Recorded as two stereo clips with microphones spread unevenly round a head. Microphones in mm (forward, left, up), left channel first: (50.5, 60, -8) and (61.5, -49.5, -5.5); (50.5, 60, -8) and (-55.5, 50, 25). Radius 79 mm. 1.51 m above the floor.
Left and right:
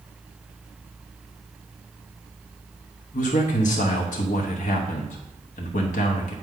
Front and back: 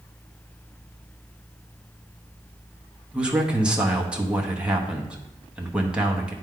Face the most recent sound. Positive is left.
turn(degrees=100)